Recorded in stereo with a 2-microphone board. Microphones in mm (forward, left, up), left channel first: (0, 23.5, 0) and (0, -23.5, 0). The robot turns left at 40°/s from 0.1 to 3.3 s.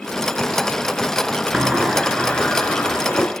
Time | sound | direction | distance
1.5 | a sliding door | 170° right | 1.6 m